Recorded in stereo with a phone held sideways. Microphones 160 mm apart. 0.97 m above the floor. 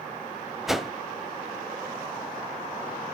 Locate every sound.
0.7 s a whoosh: centre (ahead or behind), 0.9 m